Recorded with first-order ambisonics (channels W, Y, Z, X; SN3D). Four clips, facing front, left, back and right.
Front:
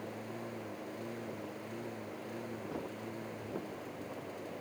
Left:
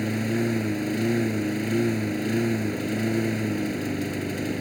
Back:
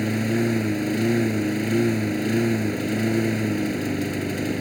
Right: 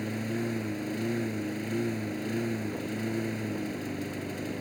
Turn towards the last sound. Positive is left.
turn(degrees=155)